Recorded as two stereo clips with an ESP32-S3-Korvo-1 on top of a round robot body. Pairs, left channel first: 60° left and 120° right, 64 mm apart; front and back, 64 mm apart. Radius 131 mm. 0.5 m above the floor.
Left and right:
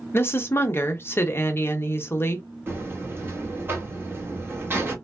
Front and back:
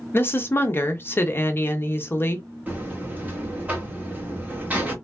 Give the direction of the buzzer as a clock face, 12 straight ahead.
4 o'clock.